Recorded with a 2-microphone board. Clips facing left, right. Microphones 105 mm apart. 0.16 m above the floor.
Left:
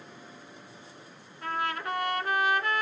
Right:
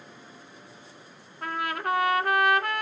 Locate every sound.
1.4 s a trumpet: 55° right (ahead or behind), 0.6 m